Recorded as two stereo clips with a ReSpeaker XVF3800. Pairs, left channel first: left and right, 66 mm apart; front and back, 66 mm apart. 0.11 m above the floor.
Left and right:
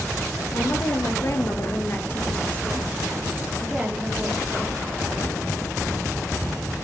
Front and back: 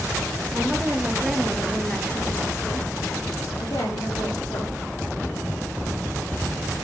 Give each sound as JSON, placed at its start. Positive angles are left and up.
{"t": 0.5, "sound": "a woman speaking", "azimuth_deg": 120, "distance_m": 2.5}